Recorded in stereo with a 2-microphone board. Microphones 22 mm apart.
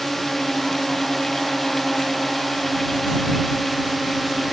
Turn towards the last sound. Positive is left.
turn(degrees=0)  # may be behind; listen again after turning